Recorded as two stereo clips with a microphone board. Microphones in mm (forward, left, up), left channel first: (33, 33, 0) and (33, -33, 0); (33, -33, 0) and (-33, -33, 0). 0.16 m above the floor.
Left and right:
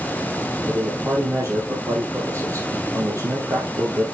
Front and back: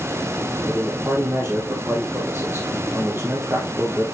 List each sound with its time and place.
0.7 s a man speaking: 125° right, 4 m